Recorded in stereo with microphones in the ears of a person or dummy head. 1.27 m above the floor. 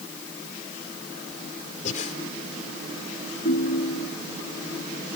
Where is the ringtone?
60° left (ahead or behind).